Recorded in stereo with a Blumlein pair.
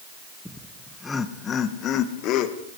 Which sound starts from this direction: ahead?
Laughter, at 0.5 s.